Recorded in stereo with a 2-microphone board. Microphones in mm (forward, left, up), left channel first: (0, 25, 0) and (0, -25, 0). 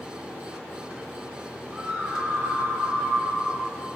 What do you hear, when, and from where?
1.7 s a scream: 30° right (ahead or behind), 1.9 m; by 3.7 s 45° right (ahead or behind), 4 m